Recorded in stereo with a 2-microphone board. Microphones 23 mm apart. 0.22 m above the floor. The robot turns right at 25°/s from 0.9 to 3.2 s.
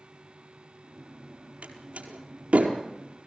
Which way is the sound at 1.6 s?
75° right (ahead or behind).